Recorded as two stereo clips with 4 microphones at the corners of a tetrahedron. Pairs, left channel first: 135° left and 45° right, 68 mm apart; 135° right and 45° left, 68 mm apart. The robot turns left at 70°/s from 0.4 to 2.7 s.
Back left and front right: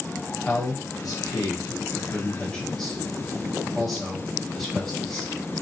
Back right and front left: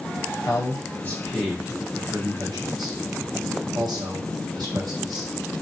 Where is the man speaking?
150° right, 0.9 m; by 5.3 s 50° left, 0.9 m.